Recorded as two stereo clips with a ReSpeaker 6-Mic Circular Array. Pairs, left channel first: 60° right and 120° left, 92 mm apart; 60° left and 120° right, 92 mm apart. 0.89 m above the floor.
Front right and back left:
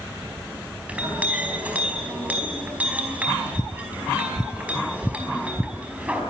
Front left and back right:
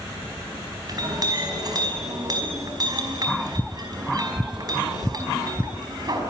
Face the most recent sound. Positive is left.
turn(degrees=-165)